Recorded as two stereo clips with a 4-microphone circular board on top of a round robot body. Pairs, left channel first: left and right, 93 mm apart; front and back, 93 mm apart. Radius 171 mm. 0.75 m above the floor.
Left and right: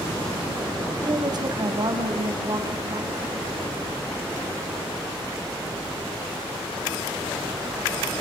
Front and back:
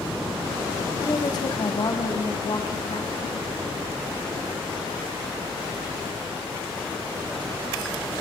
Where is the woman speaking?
50° right, 5.5 m; by 3.4 s 40° right, 6.5 m.